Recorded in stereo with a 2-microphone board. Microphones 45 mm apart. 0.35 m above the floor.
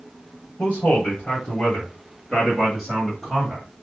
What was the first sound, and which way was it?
A man speaking, 45° left (ahead or behind).